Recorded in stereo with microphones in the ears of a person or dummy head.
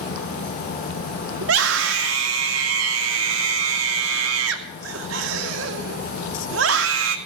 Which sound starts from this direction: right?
A scream, at 1.4 s.